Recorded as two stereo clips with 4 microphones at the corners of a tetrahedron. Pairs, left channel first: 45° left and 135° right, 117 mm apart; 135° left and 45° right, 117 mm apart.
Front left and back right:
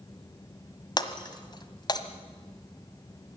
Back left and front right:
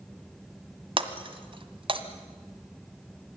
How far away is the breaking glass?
About 1.5 m.